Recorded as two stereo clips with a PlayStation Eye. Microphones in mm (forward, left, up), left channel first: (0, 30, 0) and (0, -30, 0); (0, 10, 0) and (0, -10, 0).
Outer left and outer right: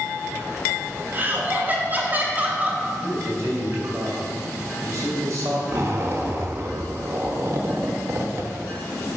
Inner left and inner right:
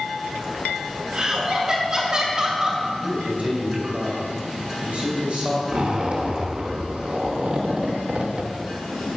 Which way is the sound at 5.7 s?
50° right (ahead or behind).